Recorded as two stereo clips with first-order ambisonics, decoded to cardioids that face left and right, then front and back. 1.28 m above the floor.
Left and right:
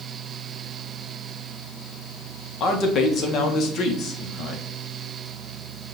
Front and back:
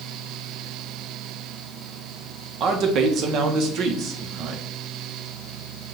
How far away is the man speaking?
About 0.8 m.